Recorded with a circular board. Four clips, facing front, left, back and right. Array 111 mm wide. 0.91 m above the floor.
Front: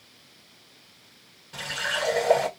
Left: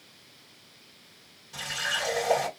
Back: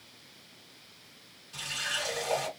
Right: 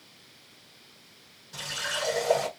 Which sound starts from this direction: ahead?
A running tap, at 1.5 s.